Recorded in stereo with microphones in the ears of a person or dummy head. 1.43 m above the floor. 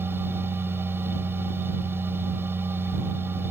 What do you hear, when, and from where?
0.0 s a machine running: 15° right (ahead or behind)